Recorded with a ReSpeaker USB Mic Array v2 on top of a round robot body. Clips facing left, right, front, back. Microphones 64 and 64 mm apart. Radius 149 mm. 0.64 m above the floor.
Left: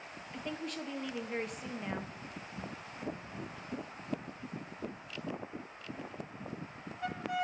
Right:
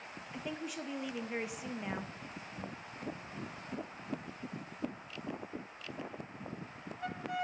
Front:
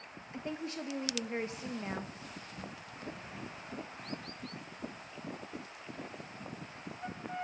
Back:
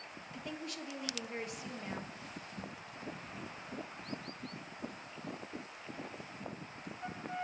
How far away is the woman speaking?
About 0.7 m.